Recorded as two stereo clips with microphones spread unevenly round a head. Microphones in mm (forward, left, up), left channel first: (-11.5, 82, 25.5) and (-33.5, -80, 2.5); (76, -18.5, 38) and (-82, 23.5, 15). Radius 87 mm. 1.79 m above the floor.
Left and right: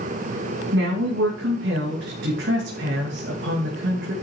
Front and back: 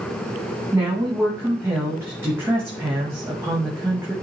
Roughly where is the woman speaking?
Behind right.